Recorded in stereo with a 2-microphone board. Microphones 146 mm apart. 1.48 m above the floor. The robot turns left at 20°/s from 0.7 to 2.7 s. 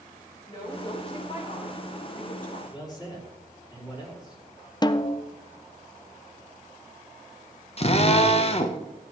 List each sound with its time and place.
0.5 s a woman speaking: 150° left, 5 m; by 2.6 s 110° left, 5 m
2.7 s a man speaking: 25° left (ahead or behind), 5 m
4.8 s a snare drum: 30° left (ahead or behind), 0.5 m
7.8 s a drill: 40° left (ahead or behind), 1.0 m